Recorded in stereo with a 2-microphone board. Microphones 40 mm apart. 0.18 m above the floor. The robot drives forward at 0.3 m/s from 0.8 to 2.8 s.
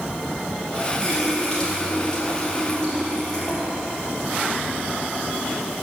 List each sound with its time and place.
1.0 s a running tap: 20° left (ahead or behind), 3 m; by 5.6 s 15° left (ahead or behind), 3.5 m